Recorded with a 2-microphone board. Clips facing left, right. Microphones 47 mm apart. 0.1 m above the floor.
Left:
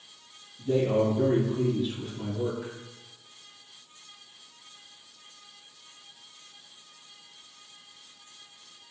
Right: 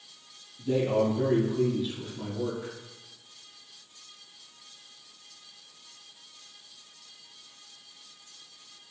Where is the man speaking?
30° right (ahead or behind), 1.8 m; by 2.7 s 25° left (ahead or behind), 1.2 m.